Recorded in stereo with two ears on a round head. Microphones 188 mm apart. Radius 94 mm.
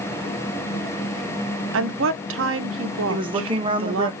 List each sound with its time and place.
1.7 s a woman speaking: 65° right (ahead or behind), 0.6 m
3.1 s a woman speaking: 25° right (ahead or behind), 0.7 m